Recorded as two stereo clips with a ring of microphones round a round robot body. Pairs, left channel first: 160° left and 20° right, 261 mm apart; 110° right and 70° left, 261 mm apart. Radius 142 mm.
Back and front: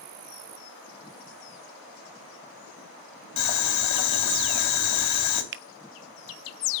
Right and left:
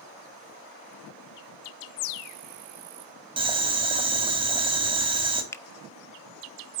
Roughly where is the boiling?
Behind left.